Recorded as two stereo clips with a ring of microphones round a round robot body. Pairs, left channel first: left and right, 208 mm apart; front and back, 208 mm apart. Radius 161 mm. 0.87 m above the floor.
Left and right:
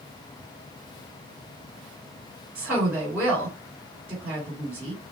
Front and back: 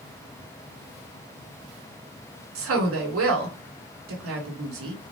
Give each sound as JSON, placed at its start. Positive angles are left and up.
{"t": 2.5, "sound": "a woman speaking", "azimuth_deg": -175, "distance_m": 2.0}